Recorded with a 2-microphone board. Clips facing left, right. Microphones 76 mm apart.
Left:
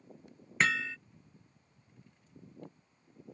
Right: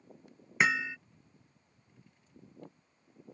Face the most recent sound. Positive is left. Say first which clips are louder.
# right 1 dB
turn(degrees=-15)  # may be behind; listen again after turning